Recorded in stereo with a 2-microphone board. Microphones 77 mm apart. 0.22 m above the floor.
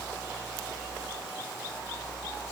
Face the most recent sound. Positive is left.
No sound to turn to.